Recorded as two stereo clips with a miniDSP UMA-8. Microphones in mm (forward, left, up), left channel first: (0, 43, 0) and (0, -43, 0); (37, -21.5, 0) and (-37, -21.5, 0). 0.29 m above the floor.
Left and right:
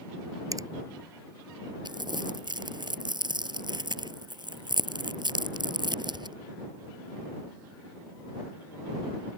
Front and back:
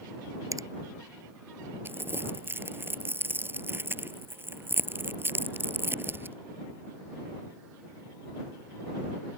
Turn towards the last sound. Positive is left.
turn(degrees=-120)